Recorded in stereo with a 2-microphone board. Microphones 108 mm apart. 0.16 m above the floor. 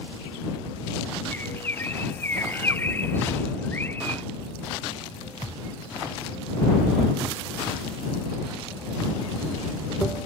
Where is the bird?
20° left (ahead or behind).